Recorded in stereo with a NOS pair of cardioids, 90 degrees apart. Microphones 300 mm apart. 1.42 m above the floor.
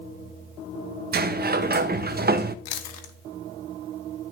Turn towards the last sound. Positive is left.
turn(degrees=65)